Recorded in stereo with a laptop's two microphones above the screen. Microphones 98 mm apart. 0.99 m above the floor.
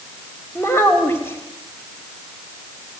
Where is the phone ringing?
No phone ringing in this recording.